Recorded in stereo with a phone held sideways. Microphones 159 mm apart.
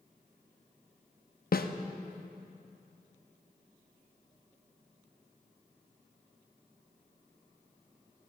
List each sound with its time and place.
1.5 s a snare drum: 70° left (ahead or behind), 0.6 m